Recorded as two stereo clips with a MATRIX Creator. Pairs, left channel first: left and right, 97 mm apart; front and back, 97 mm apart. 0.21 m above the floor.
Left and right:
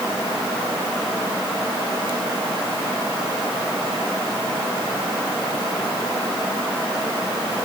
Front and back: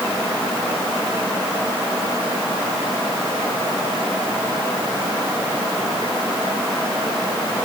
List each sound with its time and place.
Only background noise.